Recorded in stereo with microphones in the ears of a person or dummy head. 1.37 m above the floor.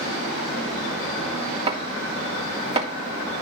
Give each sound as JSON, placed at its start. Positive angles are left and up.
{"t": 1.7, "sound": "chopping", "side_deg": -30, "distance_m": 3.0}